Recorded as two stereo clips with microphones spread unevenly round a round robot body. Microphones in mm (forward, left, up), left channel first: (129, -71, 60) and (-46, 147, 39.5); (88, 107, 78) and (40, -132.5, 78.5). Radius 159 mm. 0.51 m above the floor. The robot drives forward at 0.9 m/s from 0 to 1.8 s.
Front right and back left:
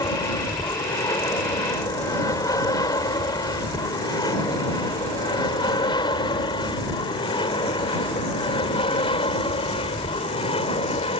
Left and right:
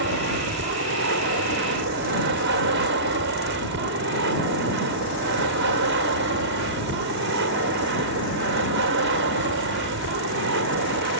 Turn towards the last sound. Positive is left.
turn(degrees=-120)